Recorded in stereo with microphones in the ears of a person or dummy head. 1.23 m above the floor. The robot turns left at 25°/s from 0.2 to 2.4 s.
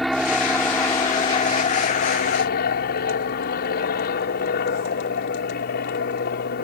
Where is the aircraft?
Straight behind; by 6.6 s 125° left.